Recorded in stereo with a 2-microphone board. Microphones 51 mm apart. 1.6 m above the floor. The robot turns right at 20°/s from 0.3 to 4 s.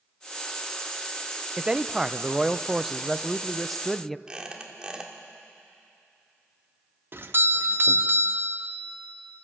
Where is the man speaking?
20° right (ahead or behind), 0.5 m; by 4.2 s 5° left (ahead or behind), 0.5 m.